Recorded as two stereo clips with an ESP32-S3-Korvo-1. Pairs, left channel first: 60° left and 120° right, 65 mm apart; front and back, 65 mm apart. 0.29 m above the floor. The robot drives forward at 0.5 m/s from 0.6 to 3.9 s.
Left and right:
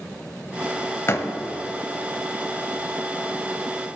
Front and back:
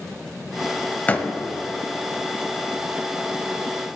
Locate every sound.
1.1 s a door slam: 50° left, 0.9 m; by 1.3 s 60° left, 0.8 m